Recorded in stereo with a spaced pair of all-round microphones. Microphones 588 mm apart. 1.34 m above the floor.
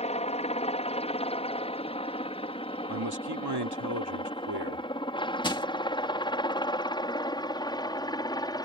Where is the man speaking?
40° right (ahead or behind).